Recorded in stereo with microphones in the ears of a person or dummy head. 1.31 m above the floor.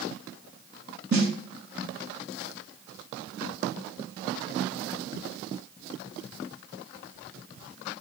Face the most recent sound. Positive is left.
turn(degrees=-65)  # may be behind; listen again after turning